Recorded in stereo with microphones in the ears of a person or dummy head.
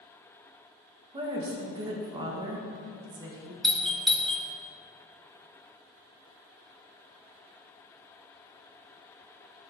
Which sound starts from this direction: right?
A woman speaking, at 1.1 s.